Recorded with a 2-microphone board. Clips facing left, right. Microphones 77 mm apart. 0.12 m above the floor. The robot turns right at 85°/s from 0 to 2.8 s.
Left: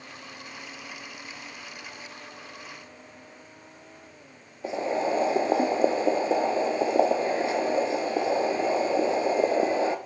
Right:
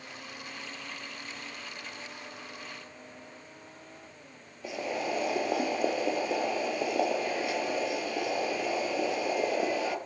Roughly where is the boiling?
Left.